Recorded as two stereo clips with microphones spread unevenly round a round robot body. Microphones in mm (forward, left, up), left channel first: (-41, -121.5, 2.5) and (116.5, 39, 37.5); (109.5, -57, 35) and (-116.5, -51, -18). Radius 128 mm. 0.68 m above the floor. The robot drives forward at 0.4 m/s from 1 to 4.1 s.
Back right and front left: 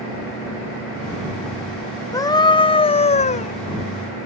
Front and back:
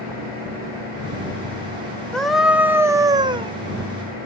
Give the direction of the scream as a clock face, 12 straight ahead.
4 o'clock.